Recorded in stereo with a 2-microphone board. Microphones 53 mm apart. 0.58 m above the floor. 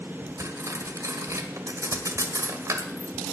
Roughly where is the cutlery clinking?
Right.